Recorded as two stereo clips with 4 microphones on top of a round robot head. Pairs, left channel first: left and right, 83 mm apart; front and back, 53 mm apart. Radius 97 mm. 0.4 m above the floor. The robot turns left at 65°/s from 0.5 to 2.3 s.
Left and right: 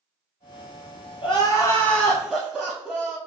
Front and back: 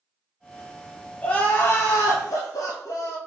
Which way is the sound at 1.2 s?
60° left.